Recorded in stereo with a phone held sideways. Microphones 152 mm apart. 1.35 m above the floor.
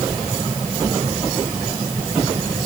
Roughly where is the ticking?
No ticking in this recording.